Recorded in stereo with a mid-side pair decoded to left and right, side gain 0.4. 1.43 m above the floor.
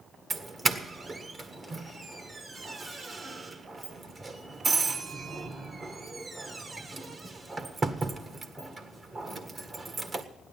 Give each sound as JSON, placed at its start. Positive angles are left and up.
{"t": 0.3, "sound": "a doorbell", "azimuth_deg": -40, "distance_m": 1.7}